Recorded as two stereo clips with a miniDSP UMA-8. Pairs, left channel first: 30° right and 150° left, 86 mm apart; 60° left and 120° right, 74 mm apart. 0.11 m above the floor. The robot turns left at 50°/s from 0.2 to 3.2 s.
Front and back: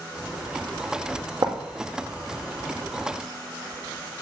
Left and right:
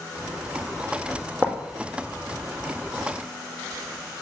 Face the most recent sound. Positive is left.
turn(degrees=40)